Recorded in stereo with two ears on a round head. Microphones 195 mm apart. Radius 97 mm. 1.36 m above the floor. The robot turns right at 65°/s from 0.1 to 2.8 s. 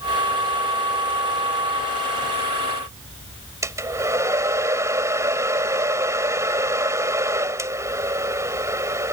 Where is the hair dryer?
15° right (ahead or behind).